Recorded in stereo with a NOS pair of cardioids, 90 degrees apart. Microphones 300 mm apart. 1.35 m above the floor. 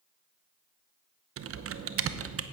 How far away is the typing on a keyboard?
About 0.8 m.